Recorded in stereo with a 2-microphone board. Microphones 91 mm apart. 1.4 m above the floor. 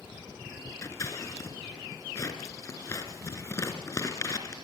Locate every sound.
0.8 s scissors: 35° left (ahead or behind), 3 m